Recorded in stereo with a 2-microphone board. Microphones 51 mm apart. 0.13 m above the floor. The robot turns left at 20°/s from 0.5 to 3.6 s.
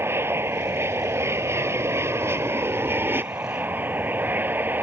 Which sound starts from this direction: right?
An aircraft, at 0.0 s.